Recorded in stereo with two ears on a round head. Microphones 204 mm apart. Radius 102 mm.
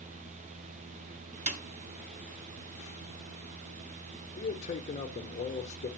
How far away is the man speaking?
About 1.0 m.